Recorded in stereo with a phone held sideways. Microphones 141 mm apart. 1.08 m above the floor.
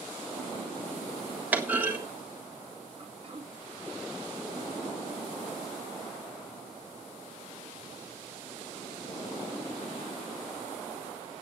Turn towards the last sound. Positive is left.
turn(degrees=-40)  # may be behind; listen again after turning